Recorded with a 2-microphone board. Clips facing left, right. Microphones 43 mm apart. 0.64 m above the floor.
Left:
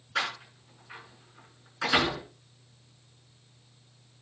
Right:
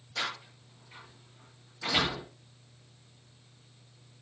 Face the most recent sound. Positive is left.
turn(degrees=75)  # may be behind; listen again after turning